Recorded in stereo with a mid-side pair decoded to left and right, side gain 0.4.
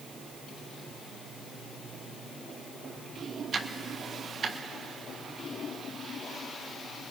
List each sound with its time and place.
3.5 s ticking: 55° right, 1.4 m